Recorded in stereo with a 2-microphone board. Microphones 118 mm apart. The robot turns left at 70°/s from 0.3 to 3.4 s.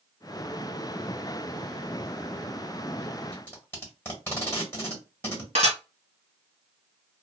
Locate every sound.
3.3 s tape being pulled: 20° left (ahead or behind), 1.2 m
5.5 s dishes clattering: 75° right (ahead or behind), 1.9 m